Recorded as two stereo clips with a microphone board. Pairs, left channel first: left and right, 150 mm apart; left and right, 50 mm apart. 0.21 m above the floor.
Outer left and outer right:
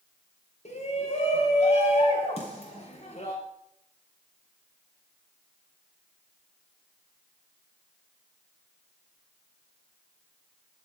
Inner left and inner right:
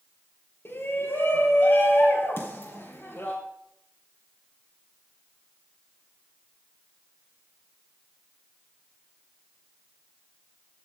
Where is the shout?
50° left (ahead or behind), 4 m.